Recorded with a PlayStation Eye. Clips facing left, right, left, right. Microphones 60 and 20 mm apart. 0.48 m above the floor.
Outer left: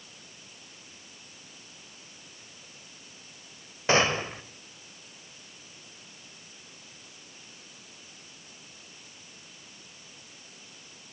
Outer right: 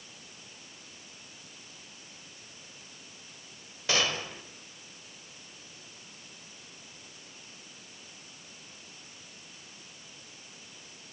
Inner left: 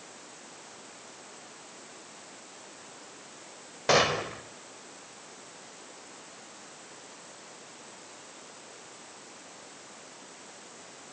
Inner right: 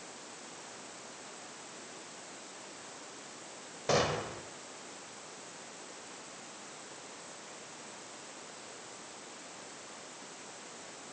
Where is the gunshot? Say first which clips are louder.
Outer left 6 dB, inner left 6 dB; 35° left (ahead or behind), 1.6 m.